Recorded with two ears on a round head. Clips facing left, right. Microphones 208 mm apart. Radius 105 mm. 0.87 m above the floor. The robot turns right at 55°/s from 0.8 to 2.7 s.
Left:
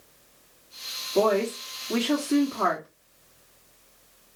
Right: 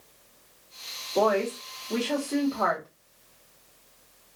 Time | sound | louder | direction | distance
1.1 | a woman speaking | left 2 dB | 35° left | 1.6 m